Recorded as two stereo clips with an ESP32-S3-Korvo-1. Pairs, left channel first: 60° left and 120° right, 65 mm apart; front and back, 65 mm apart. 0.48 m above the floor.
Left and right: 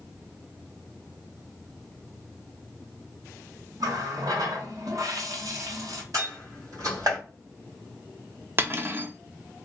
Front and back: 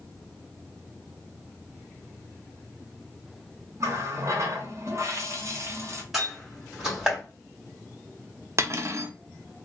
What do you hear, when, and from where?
3.8 s a running tap: 140° right, 0.9 m
6.1 s a door slam: 95° right, 2.5 m
8.6 s cutlery clinking: 165° right, 0.6 m